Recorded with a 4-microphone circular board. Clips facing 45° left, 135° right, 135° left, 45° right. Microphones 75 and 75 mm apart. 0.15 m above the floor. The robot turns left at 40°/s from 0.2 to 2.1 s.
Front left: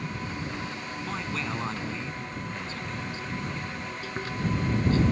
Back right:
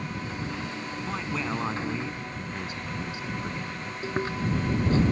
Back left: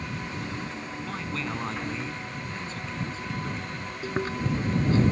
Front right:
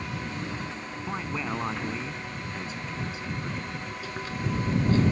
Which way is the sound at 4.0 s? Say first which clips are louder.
Back right 4 dB, back left 6 dB; 175° left.